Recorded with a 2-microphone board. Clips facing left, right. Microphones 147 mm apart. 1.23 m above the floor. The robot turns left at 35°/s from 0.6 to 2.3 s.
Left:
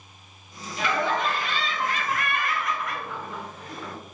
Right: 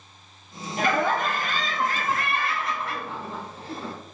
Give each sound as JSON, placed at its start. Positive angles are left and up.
{"t": 0.8, "sound": "laughter", "azimuth_deg": -85, "distance_m": 0.6}